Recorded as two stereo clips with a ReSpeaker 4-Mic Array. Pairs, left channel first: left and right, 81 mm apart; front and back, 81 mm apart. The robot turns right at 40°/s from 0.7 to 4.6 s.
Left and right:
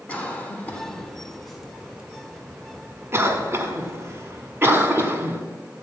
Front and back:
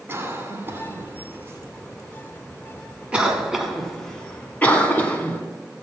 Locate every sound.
0.1 s a cough: 145° left, 1.7 m; by 5.4 s 55° right, 1.7 m